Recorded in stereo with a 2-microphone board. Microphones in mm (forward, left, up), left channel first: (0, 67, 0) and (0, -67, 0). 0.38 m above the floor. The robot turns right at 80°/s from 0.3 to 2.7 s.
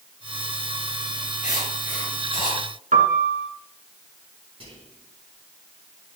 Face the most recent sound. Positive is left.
turn(degrees=-45)  # may be behind; listen again after turning